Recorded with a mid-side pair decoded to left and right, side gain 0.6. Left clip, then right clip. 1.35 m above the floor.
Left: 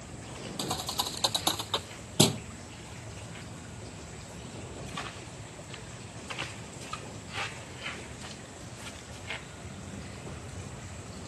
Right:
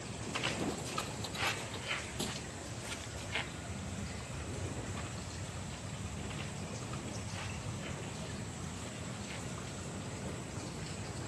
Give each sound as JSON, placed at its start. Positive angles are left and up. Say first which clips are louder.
{"t": 0.6, "sound": "a thud", "louder": "left 6 dB", "azimuth_deg": 65}